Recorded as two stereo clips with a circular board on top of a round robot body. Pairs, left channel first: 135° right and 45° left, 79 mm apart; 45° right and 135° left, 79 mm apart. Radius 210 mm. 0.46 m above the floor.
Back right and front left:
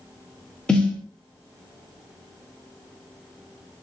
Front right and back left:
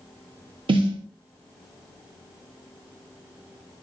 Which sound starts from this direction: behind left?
A snare drum, at 0.7 s.